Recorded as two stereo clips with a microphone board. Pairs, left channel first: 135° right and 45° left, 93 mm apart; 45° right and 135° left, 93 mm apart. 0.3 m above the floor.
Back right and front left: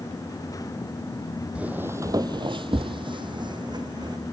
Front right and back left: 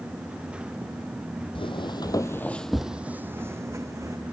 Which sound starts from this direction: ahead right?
Footsteps, at 1.6 s.